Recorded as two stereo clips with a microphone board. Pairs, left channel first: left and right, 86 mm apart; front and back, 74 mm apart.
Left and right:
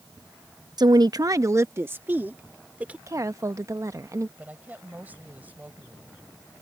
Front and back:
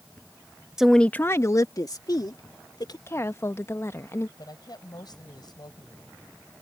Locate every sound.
0.8 s a woman speaking: 100° right; by 3.0 s 15° right
3.1 s a woman speaking: 45° right
4.4 s a woman speaking: 20° right